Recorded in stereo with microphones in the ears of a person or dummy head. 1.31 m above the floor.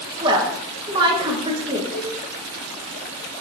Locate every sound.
0.2 s a woman speaking: 20° right (ahead or behind), 1.2 m
1.9 s a cowbell: 40° right (ahead or behind), 1.9 m